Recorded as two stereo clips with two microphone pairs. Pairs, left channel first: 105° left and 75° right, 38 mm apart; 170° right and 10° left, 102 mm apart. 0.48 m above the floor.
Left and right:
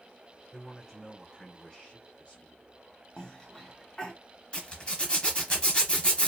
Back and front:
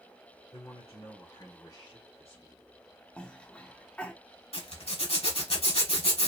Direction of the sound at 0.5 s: 160° right.